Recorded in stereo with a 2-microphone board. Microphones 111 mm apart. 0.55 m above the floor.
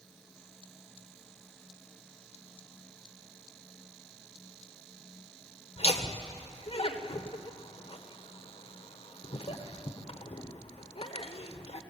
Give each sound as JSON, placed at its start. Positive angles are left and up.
{"t": 5.8, "sound": "laughter", "side_deg": 60, "distance_m": 1.6}